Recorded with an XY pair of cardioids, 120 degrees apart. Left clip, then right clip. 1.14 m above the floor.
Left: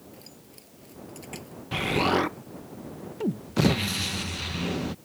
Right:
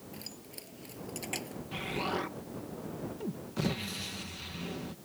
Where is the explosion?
55° left.